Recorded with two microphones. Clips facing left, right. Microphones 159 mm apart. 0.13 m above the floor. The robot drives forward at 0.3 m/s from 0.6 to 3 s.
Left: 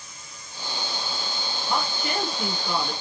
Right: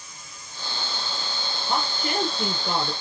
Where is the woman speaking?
40° right (ahead or behind), 1.8 m; by 2.9 s 35° right (ahead or behind), 1.9 m.